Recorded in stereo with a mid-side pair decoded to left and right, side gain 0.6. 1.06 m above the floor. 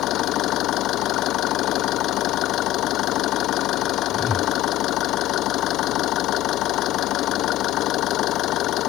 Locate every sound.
0.0 s an engine running: 60° left
4.1 s a whoosh: 25° left